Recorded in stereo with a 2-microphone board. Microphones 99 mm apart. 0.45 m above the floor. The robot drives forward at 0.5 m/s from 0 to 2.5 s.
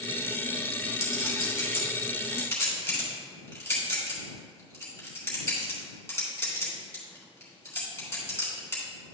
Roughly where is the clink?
Left.